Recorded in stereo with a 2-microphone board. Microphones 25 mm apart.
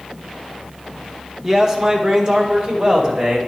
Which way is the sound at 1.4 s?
15° right (ahead or behind).